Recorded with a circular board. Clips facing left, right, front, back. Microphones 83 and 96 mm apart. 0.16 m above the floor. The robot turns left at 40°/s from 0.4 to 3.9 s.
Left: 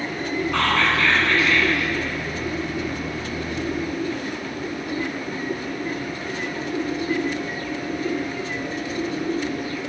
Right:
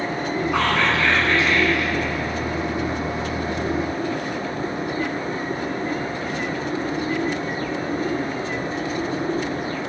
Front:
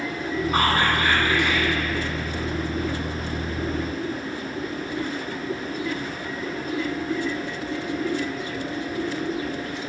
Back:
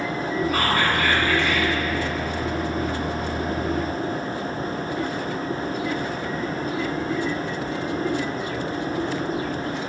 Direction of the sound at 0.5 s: 25° right.